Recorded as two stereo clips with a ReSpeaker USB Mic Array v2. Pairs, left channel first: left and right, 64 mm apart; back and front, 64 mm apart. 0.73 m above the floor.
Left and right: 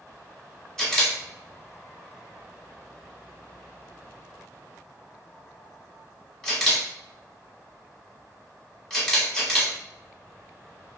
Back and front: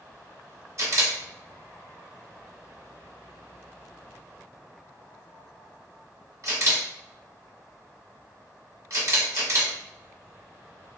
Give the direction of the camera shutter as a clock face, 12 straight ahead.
12 o'clock.